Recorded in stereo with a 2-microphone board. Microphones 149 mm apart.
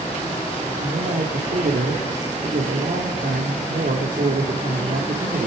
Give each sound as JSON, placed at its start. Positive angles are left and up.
{"t": 0.8, "sound": "a man speaking", "side_deg": -85, "distance_m": 2.5}